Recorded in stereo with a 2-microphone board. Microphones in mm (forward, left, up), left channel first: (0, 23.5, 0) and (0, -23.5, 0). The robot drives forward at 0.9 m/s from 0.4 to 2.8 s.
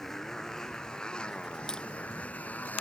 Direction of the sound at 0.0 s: 10° left (ahead or behind).